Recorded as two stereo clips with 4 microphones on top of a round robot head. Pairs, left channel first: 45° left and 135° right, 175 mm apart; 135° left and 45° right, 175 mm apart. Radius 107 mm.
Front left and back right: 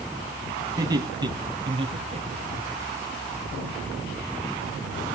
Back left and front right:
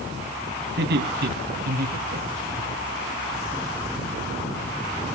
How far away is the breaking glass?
No breaking glass in this recording.